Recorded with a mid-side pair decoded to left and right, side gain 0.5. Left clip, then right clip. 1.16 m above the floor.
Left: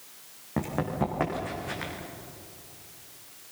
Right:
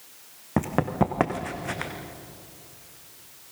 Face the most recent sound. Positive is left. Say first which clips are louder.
# right 5 dB
turn(degrees=-45)